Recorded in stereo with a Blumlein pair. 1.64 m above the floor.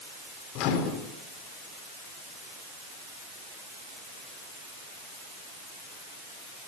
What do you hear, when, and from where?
0.6 s a microwave: 40° left, 3.5 m